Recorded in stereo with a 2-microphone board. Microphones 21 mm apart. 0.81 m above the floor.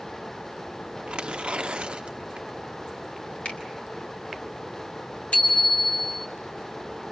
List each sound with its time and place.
1.1 s tearing paper: 65° right (ahead or behind), 0.9 m
3.5 s a finger snap: 60° left (ahead or behind), 4 m
5.3 s a bicycle bell: 75° left (ahead or behind), 4 m